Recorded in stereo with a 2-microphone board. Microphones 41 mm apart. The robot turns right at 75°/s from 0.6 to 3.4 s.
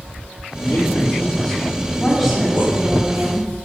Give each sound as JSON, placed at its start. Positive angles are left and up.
{"t": 0.6, "sound": "a man speaking", "azimuth_deg": 95, "distance_m": 3.5}
{"t": 2.0, "sound": "a woman speaking", "azimuth_deg": 160, "distance_m": 4.5}